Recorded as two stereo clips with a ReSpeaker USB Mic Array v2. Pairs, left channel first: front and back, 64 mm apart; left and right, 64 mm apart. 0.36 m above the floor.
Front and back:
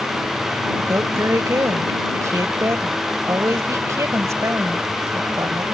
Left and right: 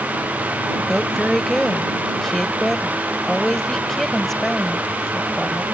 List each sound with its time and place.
0.9 s a woman speaking: 175° left